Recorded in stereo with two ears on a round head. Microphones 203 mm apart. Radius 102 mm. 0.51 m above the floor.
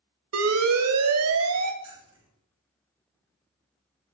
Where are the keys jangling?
25° right (ahead or behind), 9.5 m.